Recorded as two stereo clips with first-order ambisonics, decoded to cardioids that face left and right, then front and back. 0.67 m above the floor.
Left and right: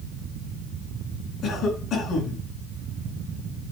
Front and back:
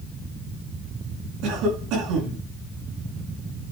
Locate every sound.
1.4 s a cough: 150° left, 8.5 m